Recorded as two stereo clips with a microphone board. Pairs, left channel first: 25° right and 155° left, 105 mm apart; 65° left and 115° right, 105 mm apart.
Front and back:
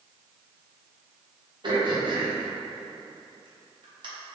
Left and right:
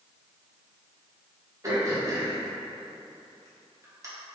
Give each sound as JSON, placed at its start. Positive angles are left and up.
{"t": 1.6, "sound": "throat clearing", "azimuth_deg": -170, "distance_m": 1.0}